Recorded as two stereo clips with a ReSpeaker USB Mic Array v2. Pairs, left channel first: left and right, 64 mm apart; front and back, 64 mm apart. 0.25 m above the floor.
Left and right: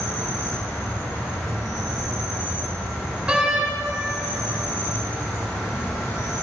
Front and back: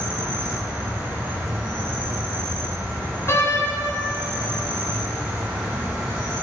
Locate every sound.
0.0 s an insect: 130° left, 3 m
3.3 s a door slam: 20° right, 0.9 m